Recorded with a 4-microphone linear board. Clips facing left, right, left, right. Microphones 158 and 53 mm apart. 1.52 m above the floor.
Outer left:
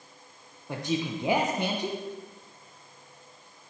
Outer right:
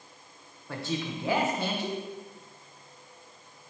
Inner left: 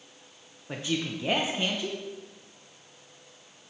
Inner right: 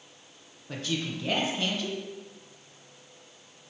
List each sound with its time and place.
0.7 s a man speaking: 20° left (ahead or behind), 0.6 m